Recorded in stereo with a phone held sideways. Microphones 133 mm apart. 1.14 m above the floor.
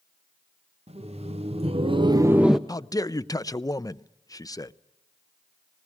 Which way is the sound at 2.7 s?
25° left (ahead or behind).